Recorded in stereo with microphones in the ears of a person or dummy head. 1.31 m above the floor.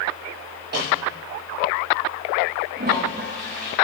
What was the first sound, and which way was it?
A snare drum, 60° right (ahead or behind).